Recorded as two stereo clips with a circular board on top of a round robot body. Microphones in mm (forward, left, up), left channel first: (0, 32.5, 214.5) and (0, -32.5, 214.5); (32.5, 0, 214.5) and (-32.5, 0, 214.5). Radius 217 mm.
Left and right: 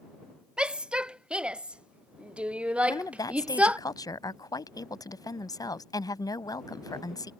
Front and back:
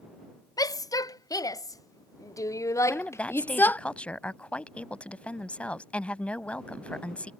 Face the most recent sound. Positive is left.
turn(degrees=70)